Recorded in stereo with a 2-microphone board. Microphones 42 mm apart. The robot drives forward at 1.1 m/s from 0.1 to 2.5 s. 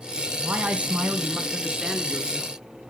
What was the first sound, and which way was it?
A man speaking, 35° right (ahead or behind).